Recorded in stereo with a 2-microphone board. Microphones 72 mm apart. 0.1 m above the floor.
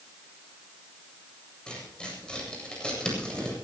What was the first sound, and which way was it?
Tearing paper, 10° left (ahead or behind).